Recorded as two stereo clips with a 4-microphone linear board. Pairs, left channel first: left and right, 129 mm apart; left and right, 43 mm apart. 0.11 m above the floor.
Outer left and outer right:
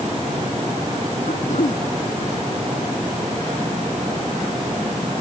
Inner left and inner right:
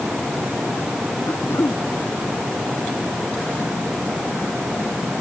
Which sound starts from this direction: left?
Throat clearing, at 1.3 s.